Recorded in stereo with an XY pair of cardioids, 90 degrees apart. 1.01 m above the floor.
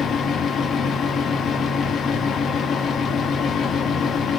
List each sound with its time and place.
0.0 s a fan: 65° left, 0.7 m